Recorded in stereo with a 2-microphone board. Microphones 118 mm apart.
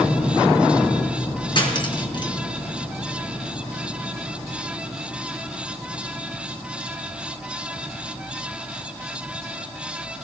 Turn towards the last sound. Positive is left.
turn(degrees=40)  # may be behind; listen again after turning